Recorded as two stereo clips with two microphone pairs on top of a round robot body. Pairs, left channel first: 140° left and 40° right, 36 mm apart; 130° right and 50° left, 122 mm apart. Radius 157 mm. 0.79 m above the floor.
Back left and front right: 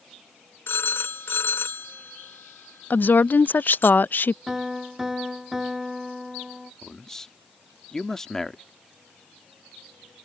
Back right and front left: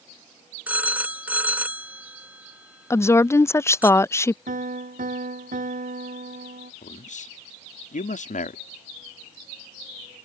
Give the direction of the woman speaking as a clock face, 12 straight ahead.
7 o'clock.